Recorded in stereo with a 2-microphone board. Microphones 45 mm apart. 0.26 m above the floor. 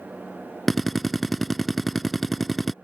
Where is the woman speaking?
No woman speaking in this recording.